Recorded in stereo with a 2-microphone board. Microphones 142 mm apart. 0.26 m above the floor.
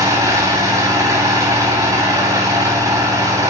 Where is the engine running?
20° right (ahead or behind), 7.5 m.